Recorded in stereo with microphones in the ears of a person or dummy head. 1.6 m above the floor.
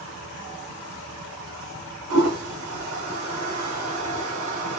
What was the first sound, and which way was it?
A toilet flushing, 80° right.